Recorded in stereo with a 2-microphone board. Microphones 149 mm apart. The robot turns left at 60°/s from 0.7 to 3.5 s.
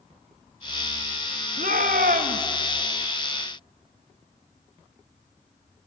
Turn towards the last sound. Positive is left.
turn(degrees=180)